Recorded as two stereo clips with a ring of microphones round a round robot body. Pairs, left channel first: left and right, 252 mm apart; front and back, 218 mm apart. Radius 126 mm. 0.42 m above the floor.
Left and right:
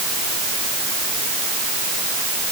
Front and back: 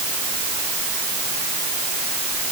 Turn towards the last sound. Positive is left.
No sound to turn to.